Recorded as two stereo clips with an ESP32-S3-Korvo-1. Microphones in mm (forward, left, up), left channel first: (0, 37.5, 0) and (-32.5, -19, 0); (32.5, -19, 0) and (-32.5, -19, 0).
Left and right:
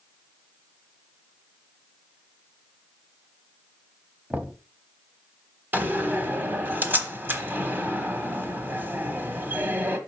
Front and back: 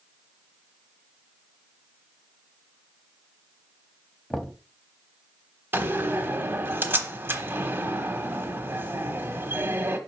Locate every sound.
4.3 s knocking: 75° right, 0.9 m
5.7 s a door slam: 155° right, 1.1 m